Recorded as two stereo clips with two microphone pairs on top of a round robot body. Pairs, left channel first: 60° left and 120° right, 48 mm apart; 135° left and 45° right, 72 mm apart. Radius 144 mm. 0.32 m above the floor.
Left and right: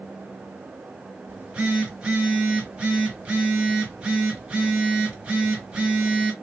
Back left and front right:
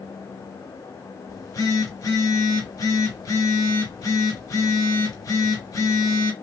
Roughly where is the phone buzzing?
Behind.